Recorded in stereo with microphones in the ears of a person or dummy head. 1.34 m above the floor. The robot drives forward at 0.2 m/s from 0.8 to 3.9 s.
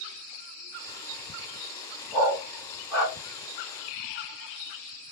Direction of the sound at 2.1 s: Centre (ahead or behind).